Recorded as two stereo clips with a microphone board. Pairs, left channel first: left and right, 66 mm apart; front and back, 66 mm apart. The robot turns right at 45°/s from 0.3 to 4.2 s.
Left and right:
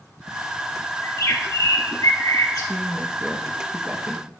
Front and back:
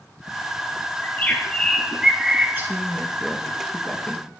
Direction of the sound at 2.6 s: 115° right.